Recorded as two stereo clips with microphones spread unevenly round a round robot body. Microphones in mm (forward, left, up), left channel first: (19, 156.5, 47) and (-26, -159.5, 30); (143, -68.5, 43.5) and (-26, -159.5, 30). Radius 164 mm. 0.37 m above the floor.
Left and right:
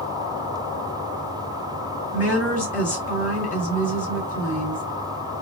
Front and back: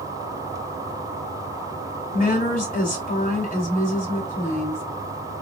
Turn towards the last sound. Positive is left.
turn(degrees=30)